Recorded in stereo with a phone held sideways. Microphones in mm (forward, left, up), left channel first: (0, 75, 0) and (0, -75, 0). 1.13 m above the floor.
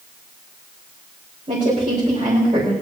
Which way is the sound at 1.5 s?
50° right (ahead or behind).